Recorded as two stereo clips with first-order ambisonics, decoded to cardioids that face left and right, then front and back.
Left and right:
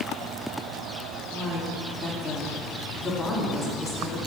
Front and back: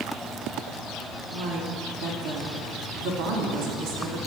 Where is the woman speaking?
175° left, 1.7 m.